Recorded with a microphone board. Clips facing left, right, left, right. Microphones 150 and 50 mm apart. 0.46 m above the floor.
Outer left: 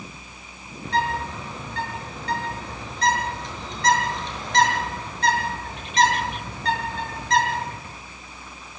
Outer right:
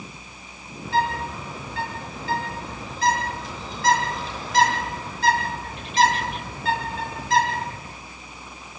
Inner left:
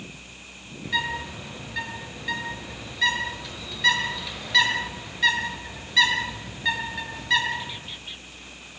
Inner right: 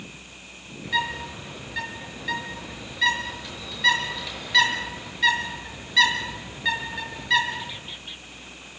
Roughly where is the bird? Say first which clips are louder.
Outer right 1 dB, inner right 1 dB; centre.